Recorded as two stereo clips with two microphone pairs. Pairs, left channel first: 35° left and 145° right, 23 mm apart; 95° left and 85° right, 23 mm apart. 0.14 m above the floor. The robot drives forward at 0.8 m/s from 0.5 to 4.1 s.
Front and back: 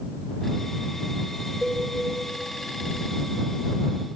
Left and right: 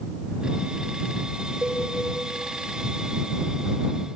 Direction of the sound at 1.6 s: 65° right.